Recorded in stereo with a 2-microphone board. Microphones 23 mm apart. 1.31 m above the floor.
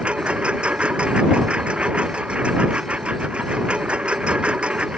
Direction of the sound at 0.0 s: 55° right (ahead or behind).